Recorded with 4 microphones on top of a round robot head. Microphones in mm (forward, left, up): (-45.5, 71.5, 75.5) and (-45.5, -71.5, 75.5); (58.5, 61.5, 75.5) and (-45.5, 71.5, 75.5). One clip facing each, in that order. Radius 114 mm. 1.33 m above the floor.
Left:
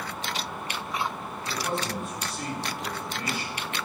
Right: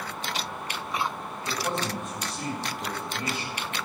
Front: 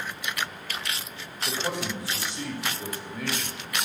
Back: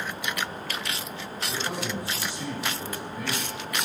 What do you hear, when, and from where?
1.5 s a man speaking: 15° right, 2.5 m